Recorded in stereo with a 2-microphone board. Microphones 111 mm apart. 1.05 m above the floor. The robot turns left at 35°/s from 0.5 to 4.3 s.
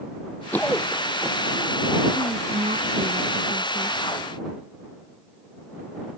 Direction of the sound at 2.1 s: 70° right.